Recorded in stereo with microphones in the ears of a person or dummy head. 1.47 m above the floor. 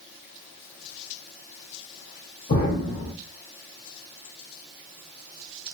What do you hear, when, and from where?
2.5 s an explosion: 50° left (ahead or behind), 2.5 m